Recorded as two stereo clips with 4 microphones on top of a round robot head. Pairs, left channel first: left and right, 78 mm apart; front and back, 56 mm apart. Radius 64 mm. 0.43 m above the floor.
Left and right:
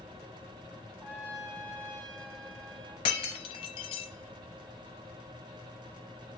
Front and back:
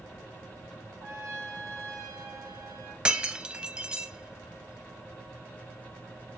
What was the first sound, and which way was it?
A trumpet, 160° left.